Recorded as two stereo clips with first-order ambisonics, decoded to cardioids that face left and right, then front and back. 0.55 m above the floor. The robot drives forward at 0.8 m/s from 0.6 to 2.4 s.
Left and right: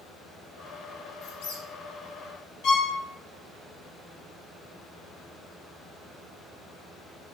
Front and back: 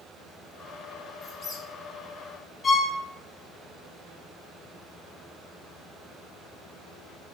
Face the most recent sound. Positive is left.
turn(degrees=95)